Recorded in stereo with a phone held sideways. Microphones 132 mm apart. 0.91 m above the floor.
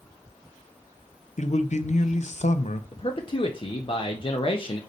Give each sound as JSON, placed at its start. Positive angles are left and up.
{"t": 1.4, "sound": "a man speaking", "side_deg": 60, "distance_m": 0.6}
{"t": 2.9, "sound": "a man speaking", "side_deg": 40, "distance_m": 0.6}